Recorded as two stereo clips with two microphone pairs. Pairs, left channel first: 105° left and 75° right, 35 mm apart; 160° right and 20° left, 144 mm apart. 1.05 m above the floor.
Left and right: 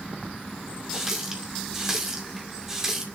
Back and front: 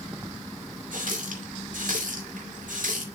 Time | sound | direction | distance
0.9 | a running tap | straight ahead | 2 m